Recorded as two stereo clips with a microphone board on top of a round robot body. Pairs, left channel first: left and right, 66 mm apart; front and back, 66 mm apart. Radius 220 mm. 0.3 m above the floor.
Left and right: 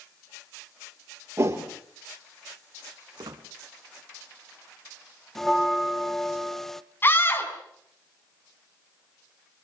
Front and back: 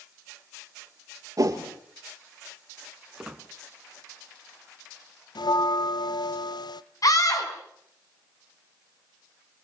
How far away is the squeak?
About 1.8 m.